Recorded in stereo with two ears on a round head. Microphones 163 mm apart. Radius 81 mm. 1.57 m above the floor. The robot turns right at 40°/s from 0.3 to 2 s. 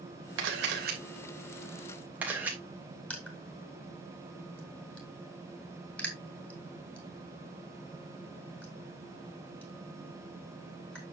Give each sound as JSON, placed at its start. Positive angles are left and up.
{"t": 0.4, "sound": "a camera shutter", "side_deg": -75, "distance_m": 3.0}
{"t": 3.1, "sound": "crushing", "side_deg": 10, "distance_m": 4.0}